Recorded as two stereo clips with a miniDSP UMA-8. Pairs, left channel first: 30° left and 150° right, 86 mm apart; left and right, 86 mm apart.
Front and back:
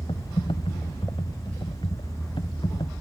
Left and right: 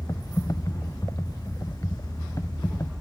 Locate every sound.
0.1 s typing on a keyboard: 40° left